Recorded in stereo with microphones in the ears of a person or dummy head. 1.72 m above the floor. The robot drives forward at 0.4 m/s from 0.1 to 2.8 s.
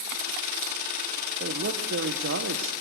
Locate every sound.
1.4 s a man speaking: 60° right (ahead or behind), 1.6 m; by 2.7 s 80° right, 1.4 m